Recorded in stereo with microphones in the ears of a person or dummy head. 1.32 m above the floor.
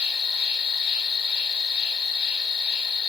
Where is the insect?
30° left (ahead or behind), 1.4 m.